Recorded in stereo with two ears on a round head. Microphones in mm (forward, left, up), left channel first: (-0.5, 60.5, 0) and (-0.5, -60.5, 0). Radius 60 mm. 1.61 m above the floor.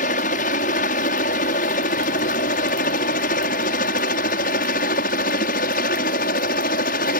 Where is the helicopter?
65° left (ahead or behind); by 7.2 s 70° left (ahead or behind).